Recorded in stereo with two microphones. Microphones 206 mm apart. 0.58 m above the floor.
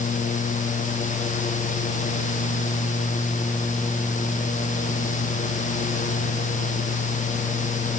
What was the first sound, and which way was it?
Only background noise.